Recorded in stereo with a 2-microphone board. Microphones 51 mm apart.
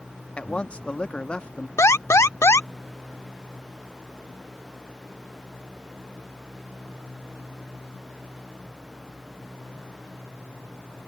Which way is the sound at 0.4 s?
20° left (ahead or behind).